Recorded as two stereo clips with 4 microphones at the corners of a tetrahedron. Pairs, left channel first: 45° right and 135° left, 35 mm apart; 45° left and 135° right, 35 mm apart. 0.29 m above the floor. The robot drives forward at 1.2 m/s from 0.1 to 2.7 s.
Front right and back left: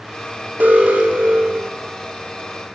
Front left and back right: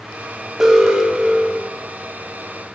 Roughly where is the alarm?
Behind left.